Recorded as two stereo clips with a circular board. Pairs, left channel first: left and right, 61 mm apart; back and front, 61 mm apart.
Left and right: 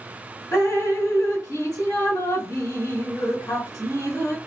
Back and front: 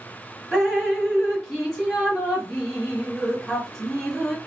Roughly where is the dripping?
Left.